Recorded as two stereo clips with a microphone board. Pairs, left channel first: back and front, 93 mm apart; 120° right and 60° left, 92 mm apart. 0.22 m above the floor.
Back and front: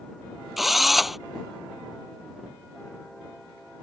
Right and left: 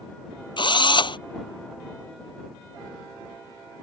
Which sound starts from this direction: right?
A drill, at 0.6 s.